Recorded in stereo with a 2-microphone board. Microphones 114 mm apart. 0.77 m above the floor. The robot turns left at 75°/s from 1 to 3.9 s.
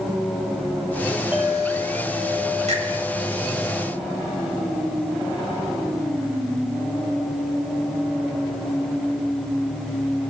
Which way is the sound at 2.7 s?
80° right.